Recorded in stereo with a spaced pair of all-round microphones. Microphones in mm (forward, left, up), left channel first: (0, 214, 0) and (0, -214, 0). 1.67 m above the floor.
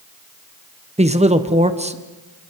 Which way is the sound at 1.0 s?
15° right (ahead or behind).